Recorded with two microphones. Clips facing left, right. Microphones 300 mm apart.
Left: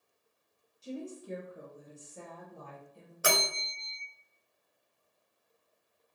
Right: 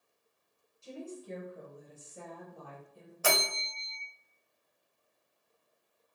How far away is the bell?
About 0.6 m.